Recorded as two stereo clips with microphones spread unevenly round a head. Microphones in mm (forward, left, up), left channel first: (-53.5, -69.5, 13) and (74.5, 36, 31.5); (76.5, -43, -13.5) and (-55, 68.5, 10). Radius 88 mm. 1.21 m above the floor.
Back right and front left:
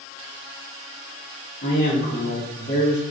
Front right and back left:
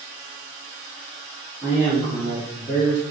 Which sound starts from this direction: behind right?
A man speaking, at 1.6 s.